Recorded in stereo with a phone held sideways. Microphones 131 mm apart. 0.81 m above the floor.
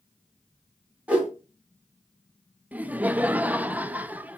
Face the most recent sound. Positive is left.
turn(degrees=-10)  # may be behind; listen again after turning